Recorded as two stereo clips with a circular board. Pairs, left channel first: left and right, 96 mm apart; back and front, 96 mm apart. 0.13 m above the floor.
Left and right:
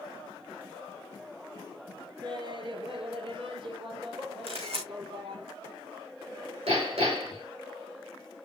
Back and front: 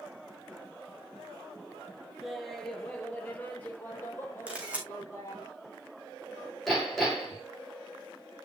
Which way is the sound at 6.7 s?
90° right.